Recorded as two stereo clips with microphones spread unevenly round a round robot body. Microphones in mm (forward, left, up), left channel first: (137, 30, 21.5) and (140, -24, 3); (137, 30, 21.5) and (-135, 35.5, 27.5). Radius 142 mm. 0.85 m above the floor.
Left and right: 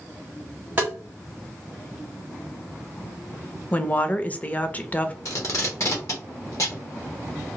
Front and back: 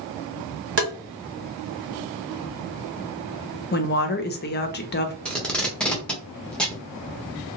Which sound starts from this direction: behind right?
Tapping, at 0.8 s.